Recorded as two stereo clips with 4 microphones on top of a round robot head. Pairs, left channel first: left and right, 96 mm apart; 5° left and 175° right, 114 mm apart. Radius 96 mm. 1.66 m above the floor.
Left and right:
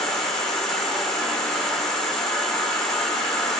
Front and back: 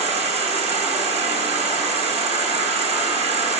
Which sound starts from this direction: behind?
An insect, at 0.0 s.